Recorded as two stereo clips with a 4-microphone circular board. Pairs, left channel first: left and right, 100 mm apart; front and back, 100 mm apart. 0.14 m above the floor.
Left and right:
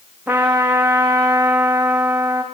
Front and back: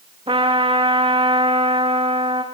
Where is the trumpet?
170° right, 7 m.